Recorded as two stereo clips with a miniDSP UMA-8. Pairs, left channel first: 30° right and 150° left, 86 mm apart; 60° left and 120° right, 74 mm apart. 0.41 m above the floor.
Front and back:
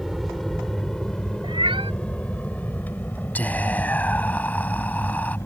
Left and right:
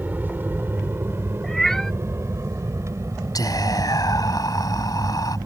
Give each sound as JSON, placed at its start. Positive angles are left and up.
{"t": 0.0, "sound": "an aircraft", "azimuth_deg": -120}
{"t": 1.4, "sound": "a cat meowing", "azimuth_deg": 145}
{"t": 3.4, "sound": "whispering", "azimuth_deg": 40}